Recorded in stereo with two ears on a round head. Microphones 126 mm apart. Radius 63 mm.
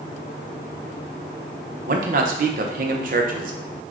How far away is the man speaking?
About 0.6 m.